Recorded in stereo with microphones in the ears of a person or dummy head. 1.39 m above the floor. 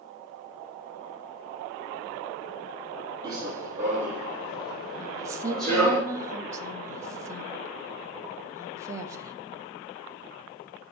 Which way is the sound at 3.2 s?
15° right (ahead or behind).